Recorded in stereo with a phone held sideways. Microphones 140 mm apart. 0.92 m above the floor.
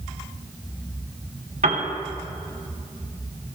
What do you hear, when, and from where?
1.6 s a piano: 80° right, 2.5 m